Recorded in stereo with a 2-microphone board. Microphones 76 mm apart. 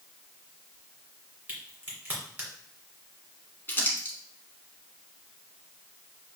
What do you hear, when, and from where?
1.5 s a crack: 20° right (ahead or behind), 2.0 m
3.7 s crumpling: 25° left (ahead or behind), 1.5 m